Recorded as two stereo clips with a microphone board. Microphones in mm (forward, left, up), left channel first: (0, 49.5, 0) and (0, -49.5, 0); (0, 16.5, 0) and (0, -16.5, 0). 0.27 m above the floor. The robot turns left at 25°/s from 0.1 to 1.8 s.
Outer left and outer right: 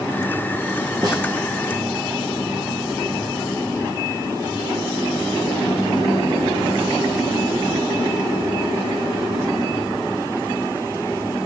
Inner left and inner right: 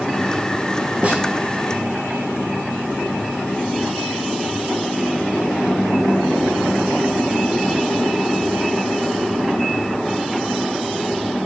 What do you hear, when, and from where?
1.0 s a snare drum: 40° right (ahead or behind), 3 m; by 1.2 s 45° right (ahead or behind), 3 m